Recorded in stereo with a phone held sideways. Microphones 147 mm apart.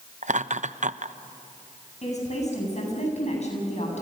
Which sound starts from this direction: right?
Laughter, at 0.2 s.